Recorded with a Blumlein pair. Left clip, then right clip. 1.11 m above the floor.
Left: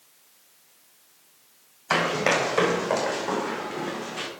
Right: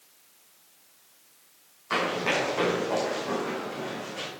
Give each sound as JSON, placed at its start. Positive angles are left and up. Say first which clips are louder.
{"t": 1.9, "sound": "running footsteps", "louder": "left 4 dB", "azimuth_deg": 60, "distance_m": 4.0}